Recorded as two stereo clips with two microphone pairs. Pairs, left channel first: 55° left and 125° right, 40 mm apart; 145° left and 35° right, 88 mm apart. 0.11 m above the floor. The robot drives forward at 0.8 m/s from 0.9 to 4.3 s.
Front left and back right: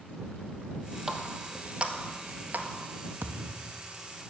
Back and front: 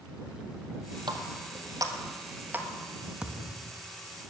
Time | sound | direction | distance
1.1 | a running tap | 45° right | 1.6 m
3.2 | a thud | 115° right | 1.2 m